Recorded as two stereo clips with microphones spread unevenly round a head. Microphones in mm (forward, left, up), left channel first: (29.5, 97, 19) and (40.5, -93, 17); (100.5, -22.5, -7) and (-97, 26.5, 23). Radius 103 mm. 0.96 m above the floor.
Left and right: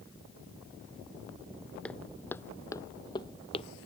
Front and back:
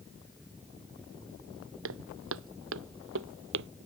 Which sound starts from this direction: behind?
Footsteps, at 1.8 s.